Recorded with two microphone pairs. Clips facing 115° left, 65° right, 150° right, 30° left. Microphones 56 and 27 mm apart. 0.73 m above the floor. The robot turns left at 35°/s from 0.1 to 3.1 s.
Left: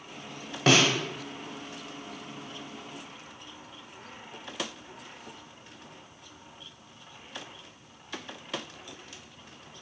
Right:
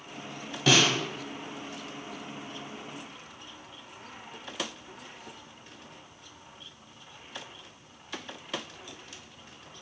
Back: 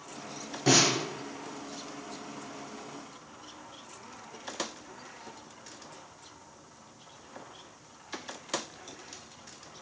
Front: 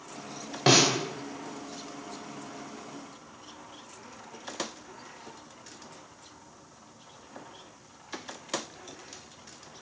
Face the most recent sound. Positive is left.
turn(degrees=-10)